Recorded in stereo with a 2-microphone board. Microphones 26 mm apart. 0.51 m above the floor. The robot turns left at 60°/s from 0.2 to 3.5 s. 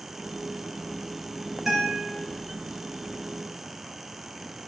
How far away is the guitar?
About 1.9 m.